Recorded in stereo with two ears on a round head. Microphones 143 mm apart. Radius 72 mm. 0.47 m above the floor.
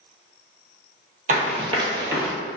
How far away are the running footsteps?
About 0.7 m.